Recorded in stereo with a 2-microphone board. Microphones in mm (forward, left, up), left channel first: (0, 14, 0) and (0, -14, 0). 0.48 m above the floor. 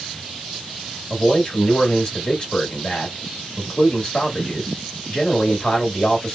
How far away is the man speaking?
About 1.5 m.